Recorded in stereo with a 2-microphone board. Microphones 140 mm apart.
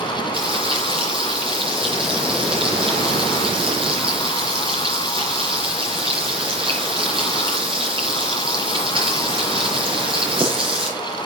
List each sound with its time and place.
0.3 s frying: 35° right (ahead or behind), 6 m